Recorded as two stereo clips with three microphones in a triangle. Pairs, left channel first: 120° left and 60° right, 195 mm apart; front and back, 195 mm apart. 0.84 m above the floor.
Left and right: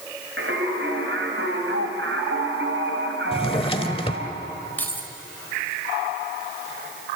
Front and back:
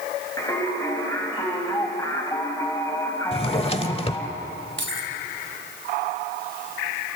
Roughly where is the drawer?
Ahead left.